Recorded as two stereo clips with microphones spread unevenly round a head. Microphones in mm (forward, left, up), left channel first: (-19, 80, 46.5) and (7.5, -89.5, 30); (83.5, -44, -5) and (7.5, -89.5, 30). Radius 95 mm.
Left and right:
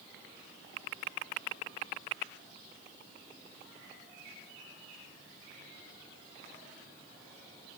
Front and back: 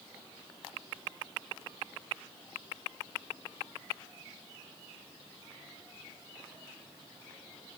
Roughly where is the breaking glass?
No breaking glass in this recording.